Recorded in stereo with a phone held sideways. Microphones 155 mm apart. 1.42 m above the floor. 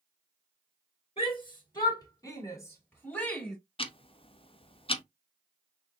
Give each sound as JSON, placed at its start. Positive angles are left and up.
{"t": 1.2, "sound": "a shout", "side_deg": 40, "distance_m": 2.5}
{"t": 3.8, "sound": "ticking", "side_deg": 40, "distance_m": 0.6}